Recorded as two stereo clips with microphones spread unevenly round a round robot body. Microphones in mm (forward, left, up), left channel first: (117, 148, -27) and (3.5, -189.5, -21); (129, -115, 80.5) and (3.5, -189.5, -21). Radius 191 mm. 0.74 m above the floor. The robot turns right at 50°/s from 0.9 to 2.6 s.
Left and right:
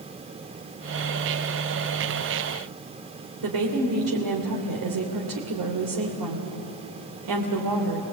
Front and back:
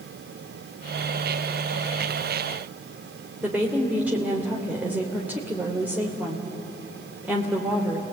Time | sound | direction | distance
3.4 | a woman speaking | 85° right | 3 m